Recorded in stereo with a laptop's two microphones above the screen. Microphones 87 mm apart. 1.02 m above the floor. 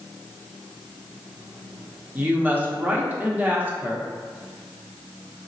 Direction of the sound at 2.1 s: 20° right (ahead or behind).